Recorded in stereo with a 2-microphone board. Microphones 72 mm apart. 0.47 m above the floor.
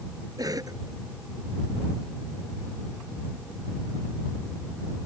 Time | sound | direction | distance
0.4 | a cough | 60° right (ahead or behind) | ?